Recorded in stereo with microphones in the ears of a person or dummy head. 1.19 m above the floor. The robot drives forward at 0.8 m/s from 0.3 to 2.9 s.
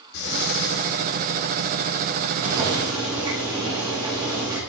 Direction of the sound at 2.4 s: 20° right (ahead or behind).